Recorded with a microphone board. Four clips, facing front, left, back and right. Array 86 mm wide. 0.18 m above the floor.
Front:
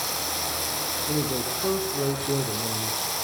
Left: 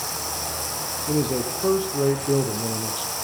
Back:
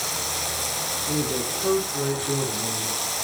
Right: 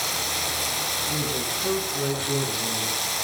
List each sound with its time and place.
0.0 s running water: 100° right, 0.9 m
1.1 s a man speaking: 85° left, 6 m